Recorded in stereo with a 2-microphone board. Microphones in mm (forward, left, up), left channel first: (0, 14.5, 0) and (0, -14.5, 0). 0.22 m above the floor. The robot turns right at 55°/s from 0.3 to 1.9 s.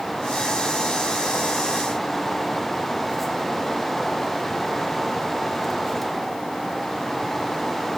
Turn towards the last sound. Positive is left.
No sound to turn to.